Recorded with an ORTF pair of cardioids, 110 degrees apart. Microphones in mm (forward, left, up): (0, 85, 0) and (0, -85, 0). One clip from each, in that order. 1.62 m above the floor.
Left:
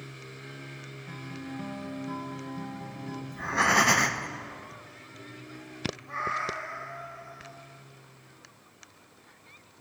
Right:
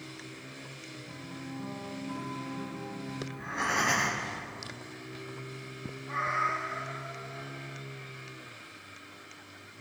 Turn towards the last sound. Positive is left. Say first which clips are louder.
# right 2 dB
turn(degrees=15)